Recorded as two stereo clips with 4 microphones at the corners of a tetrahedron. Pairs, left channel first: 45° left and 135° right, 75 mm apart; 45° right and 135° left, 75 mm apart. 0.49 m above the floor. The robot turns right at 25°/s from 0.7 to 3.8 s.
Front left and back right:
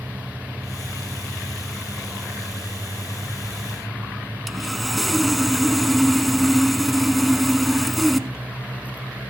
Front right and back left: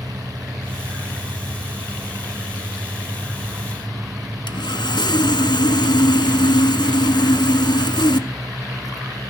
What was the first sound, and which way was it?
Sawing, 45° right.